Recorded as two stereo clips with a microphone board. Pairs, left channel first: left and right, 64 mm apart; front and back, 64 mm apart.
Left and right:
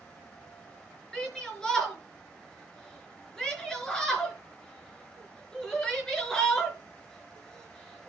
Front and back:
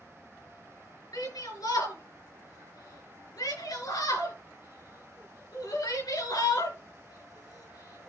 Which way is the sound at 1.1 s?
10° left.